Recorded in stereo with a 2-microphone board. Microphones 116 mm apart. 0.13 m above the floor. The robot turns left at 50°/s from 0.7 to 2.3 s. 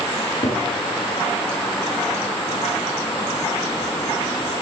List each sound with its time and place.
0.2 s a cupboard door: 45° left (ahead or behind), 2 m